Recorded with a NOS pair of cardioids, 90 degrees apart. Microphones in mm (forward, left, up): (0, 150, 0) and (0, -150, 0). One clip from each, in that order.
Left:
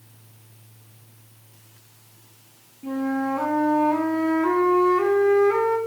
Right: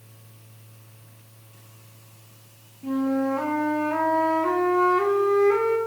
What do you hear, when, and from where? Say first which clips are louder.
2.8 s a flute: right 1 dB; 5° left, 1.4 m